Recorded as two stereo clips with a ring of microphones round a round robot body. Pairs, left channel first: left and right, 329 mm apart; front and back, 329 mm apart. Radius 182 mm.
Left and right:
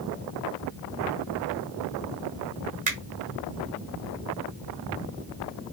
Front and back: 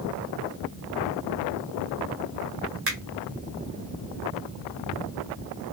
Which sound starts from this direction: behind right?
A finger snap, at 2.9 s.